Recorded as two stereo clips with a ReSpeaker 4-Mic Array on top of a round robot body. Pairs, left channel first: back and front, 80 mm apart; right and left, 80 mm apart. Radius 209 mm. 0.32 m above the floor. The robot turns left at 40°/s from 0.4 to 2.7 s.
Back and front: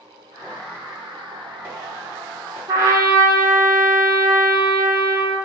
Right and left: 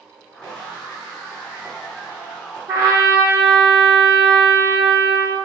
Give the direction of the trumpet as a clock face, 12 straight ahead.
10 o'clock.